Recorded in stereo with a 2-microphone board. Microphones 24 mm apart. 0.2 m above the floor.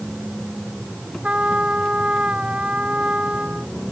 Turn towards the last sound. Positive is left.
turn(degrees=-55)  # may be behind; listen again after turning